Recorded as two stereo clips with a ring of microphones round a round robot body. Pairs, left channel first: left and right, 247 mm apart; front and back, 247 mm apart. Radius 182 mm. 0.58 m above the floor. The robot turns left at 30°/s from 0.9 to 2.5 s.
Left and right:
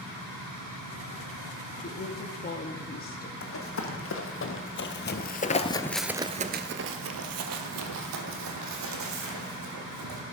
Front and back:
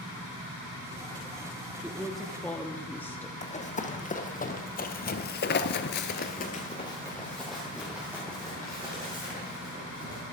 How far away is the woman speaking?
About 0.9 m.